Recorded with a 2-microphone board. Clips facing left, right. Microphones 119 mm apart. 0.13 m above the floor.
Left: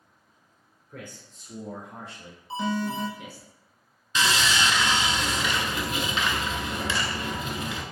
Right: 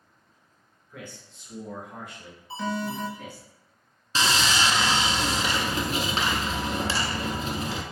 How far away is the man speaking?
About 1.5 m.